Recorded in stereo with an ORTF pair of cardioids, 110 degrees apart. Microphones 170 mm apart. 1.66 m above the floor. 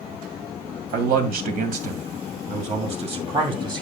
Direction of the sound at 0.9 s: 65° right.